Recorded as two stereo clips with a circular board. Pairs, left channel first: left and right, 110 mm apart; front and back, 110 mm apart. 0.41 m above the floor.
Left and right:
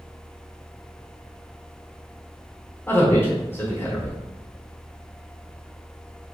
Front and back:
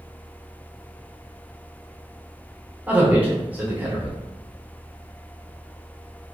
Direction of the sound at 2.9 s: 125° left.